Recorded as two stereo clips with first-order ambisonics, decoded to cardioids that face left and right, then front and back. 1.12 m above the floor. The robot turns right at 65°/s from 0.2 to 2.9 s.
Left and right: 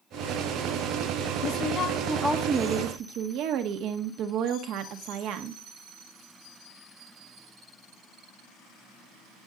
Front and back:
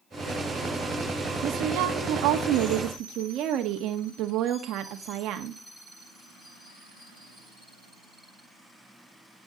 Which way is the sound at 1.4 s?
130° left.